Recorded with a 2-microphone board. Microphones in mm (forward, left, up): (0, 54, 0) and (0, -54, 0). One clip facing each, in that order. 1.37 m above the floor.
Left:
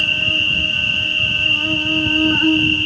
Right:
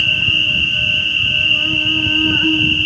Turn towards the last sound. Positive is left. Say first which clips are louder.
# right 1 dB
turn(degrees=15)  # may be behind; listen again after turning